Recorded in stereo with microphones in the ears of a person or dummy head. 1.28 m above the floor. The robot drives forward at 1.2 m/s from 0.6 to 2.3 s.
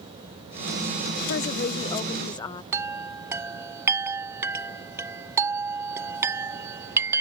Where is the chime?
15° right (ahead or behind).